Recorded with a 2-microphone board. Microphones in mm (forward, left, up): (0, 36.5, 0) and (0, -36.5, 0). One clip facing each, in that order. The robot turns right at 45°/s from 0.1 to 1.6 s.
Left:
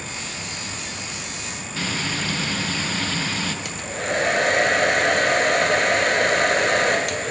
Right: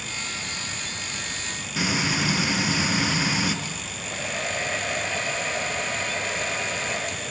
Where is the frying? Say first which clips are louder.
Right 2 dB; 15° right (ahead or behind), 3.5 m.